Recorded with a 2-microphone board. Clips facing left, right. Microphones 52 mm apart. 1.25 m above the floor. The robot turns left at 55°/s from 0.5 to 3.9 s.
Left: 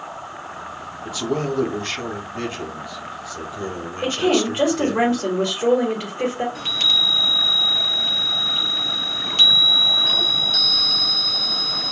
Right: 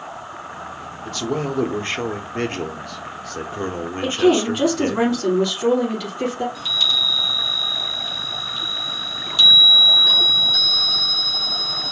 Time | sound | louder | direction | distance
1.1 | a man speaking | left 1 dB | 15° left | 0.7 m
4.0 | a woman speaking | right 3 dB | 45° left (ahead or behind) | 1.7 m
6.5 | a chime | even | 50° left (ahead or behind) | 0.6 m